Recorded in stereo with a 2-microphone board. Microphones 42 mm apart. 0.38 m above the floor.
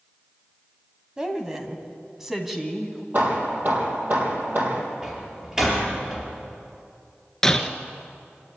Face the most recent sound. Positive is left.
turn(degrees=10)  # may be behind; listen again after turning